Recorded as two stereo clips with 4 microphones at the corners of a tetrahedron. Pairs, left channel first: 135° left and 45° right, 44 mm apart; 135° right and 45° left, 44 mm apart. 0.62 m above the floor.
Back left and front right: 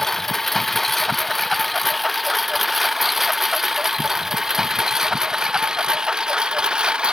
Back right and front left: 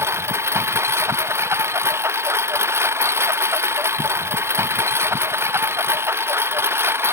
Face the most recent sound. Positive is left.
turn(degrees=25)